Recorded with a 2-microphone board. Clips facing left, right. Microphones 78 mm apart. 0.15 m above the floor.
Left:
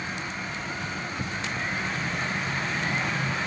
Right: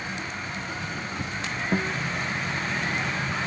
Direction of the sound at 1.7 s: 70° right (ahead or behind).